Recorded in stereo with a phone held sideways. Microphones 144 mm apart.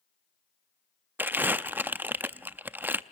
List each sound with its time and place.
1.2 s crumpling: 15° right (ahead or behind), 0.5 m